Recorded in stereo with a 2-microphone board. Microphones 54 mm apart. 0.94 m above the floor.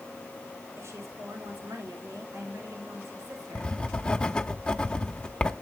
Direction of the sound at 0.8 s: 65° right (ahead or behind).